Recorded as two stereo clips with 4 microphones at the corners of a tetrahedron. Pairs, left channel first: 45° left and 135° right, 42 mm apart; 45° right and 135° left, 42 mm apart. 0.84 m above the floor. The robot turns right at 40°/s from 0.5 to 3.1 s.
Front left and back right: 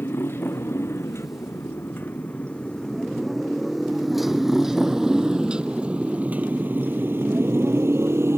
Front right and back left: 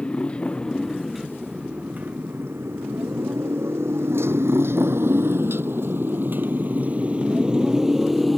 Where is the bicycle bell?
No bicycle bell in this recording.